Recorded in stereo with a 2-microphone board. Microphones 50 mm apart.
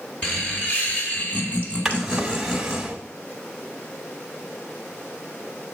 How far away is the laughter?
About 1.3 m.